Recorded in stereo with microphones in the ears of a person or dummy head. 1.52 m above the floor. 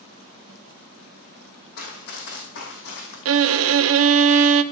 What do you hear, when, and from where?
1.8 s running footsteps: 55° left (ahead or behind), 3 m; by 3.1 s 65° left (ahead or behind), 4 m
3.2 s a violin: 70° right (ahead or behind), 0.6 m